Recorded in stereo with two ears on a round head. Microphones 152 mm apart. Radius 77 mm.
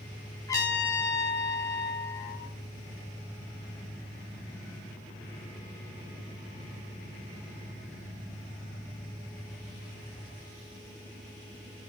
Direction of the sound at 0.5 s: 20° left (ahead or behind).